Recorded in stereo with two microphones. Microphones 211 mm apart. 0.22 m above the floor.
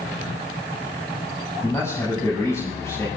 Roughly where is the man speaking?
Centre.